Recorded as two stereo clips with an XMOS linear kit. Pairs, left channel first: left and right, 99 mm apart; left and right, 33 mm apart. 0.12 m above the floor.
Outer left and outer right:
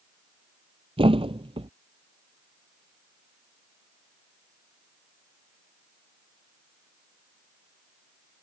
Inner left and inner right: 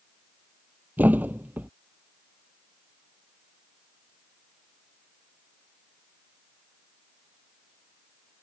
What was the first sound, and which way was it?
A thud, 70° right (ahead or behind).